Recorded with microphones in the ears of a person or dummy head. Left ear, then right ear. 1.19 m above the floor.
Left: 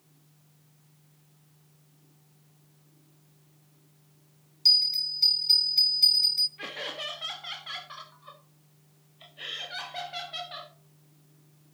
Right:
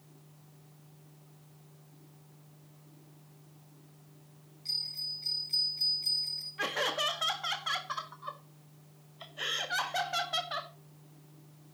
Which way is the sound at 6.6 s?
45° right (ahead or behind).